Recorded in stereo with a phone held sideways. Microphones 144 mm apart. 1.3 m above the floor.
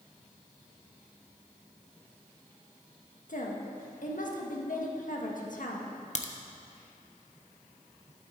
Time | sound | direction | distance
3.3 | a woman speaking | 65° left (ahead or behind) | 1.5 m
6.2 | a crack | 55° left (ahead or behind) | 0.8 m